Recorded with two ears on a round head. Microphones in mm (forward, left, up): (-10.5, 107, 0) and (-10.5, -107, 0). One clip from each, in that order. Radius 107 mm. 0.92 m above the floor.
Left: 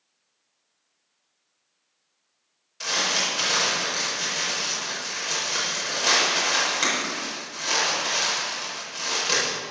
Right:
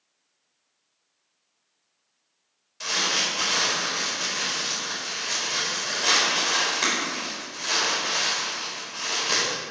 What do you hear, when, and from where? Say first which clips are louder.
2.8 s crumpling: even; 10° left (ahead or behind), 4.5 m